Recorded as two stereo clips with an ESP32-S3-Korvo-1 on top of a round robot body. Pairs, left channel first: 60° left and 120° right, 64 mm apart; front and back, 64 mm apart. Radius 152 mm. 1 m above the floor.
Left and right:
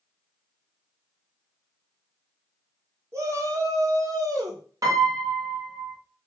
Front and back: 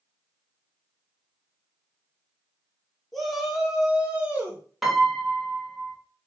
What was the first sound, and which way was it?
A shout, 85° right.